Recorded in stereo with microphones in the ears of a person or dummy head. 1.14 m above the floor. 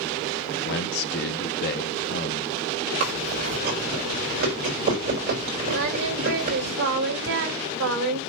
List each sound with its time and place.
0.7 s a man speaking: 55° left (ahead or behind), 1.3 m
3.0 s chewing: 45° right (ahead or behind), 5 m
5.7 s singing: 80° right, 2.5 m